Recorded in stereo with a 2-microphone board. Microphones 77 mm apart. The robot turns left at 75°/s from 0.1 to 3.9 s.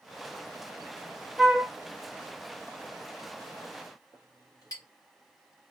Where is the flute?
Centre (ahead or behind), 0.6 m; by 1.7 s 15° right (ahead or behind), 0.6 m.